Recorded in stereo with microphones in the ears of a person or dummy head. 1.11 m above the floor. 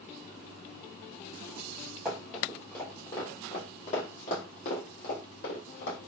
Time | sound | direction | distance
2.0 | running footsteps | centre (ahead or behind) | 1.7 m